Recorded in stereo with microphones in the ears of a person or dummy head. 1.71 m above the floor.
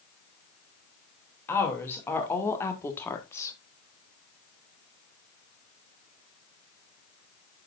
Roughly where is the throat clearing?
No throat clearing in this recording.